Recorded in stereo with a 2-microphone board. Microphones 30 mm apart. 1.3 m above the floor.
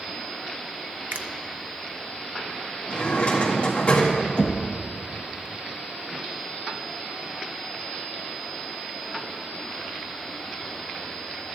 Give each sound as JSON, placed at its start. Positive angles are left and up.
{"t": 1.1, "sound": "a finger snap", "side_deg": -75, "distance_m": 0.5}
{"t": 2.9, "sound": "a drawer", "side_deg": 45, "distance_m": 1.9}
{"t": 4.4, "sound": "knocking", "side_deg": 40, "distance_m": 0.9}